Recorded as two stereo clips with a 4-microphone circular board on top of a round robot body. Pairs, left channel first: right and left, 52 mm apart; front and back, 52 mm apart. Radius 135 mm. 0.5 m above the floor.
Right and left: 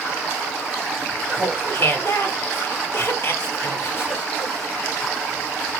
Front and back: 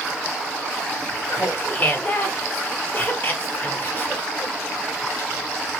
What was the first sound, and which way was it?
Laughter, 50° right.